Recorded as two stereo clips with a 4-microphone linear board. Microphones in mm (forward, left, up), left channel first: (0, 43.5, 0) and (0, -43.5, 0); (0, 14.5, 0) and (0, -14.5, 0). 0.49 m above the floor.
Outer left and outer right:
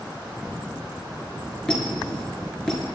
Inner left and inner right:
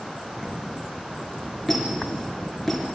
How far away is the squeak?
About 3 m.